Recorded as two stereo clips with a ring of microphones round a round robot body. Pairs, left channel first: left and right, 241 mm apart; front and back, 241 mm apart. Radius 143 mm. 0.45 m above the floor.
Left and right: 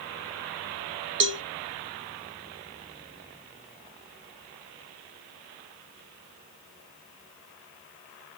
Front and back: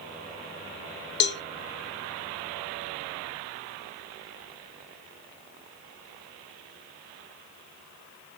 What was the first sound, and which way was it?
A cowbell, 45° right.